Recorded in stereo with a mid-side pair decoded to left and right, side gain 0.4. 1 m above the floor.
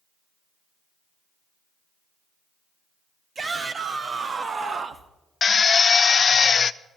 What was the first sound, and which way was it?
A shout, 50° right.